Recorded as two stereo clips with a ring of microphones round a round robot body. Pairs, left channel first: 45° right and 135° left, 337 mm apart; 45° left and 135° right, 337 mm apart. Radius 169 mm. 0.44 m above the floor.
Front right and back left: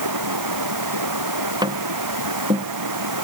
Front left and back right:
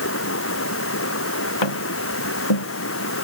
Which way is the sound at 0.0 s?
100° left.